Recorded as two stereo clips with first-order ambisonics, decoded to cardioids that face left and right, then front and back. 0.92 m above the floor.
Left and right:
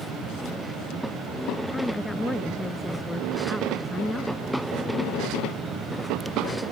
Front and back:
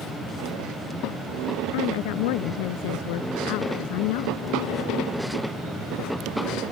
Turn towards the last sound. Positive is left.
turn(degrees=0)